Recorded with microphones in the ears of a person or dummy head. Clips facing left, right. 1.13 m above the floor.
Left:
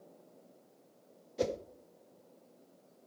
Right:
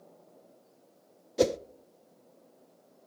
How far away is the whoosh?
About 0.5 m.